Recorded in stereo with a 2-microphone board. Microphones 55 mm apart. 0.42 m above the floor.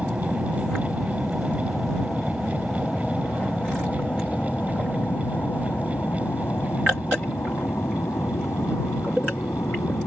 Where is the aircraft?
10° right (ahead or behind); by 10.1 s 60° left (ahead or behind).